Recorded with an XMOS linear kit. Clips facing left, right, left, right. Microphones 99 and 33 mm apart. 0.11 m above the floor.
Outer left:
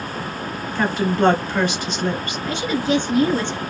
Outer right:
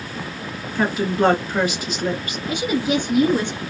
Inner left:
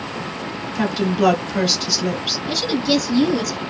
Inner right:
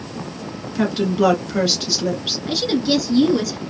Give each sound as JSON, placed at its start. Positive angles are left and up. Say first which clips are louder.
{"t": 0.8, "sound": "a woman speaking", "louder": "even, inner right 1 dB", "side_deg": -5, "distance_m": 1.5}
{"t": 2.5, "sound": "a woman speaking", "louder": "even, inner right 1 dB", "side_deg": -10, "distance_m": 1.2}